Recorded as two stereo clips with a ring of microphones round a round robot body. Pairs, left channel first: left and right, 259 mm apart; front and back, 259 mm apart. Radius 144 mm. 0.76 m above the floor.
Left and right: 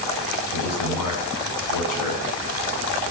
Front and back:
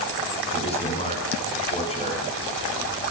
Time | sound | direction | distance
0.5 | a man speaking | 70° left | 8 m